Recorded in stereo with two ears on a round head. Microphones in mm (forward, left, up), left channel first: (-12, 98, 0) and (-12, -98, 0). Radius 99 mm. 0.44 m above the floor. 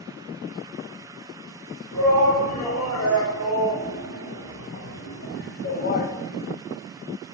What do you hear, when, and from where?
1.9 s a shout: 80° left, 5.5 m; by 6.1 s 35° left (ahead or behind), 2.5 m